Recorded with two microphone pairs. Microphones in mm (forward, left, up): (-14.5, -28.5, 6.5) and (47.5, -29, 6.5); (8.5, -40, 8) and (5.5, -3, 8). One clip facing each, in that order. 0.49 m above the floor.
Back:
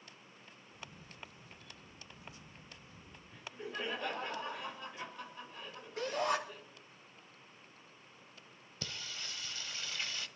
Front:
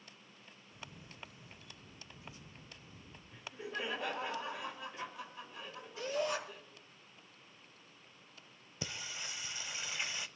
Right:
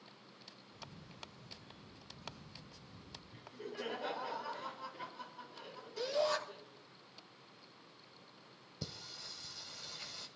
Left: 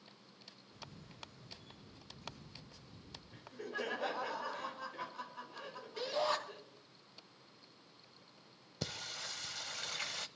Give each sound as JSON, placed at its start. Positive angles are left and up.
{"t": 0.7, "sound": "a camera shutter", "azimuth_deg": 60, "distance_m": 5.5}
{"t": 3.3, "sound": "laughter", "azimuth_deg": 85, "distance_m": 4.5}
{"t": 6.0, "sound": "a shout", "azimuth_deg": 150, "distance_m": 3.0}
{"t": 8.8, "sound": "singing", "azimuth_deg": 70, "distance_m": 0.6}